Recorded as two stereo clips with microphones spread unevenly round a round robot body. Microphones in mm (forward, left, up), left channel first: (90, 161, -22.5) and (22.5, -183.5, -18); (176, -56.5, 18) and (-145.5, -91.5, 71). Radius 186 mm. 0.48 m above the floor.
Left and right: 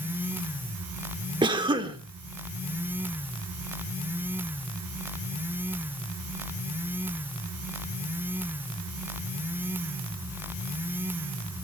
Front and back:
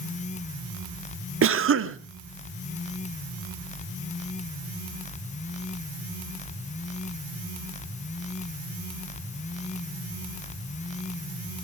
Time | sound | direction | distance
1.4 | a cough | 165° right | 1.3 m